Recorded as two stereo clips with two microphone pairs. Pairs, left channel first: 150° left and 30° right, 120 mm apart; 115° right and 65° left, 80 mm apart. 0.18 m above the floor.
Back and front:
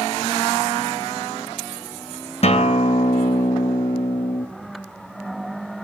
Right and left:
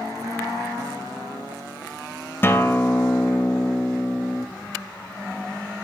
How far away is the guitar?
About 1.0 m.